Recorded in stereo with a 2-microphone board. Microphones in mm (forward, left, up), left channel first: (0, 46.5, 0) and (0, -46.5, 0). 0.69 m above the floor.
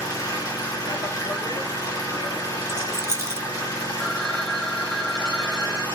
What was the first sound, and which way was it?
An engine running, 40° left (ahead or behind).